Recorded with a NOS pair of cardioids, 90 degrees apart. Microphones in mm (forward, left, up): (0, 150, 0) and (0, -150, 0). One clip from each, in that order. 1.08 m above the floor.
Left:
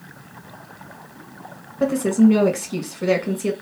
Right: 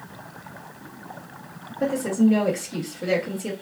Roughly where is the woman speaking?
Ahead left.